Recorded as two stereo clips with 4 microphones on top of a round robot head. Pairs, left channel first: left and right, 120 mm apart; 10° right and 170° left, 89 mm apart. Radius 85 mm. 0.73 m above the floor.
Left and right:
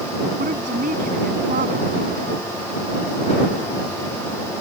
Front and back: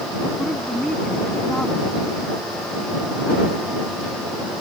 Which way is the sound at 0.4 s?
95° right.